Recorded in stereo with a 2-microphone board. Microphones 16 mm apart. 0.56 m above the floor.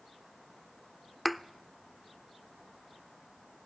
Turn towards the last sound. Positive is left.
turn(degrees=0)  # may be behind; listen again after turning